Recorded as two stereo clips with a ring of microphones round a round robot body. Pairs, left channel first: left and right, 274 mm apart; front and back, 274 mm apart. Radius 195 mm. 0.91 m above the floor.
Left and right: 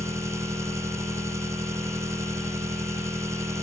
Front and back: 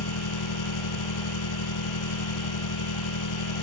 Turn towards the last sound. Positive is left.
turn(degrees=-10)